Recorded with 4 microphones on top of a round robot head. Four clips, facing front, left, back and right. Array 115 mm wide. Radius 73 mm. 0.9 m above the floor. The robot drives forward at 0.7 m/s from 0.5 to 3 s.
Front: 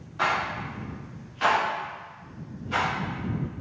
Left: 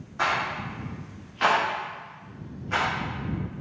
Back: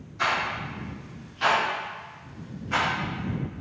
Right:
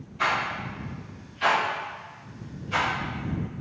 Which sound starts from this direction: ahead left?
A rattle, at 0.2 s.